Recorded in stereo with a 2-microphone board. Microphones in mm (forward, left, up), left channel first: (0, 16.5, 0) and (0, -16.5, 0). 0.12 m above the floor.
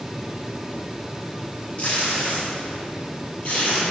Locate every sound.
1.8 s tape being pulled: 40° left (ahead or behind), 3.5 m